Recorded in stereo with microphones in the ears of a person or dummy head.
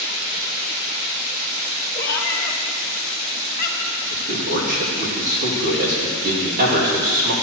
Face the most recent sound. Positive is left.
turn(degrees=-45)  # may be behind; listen again after turning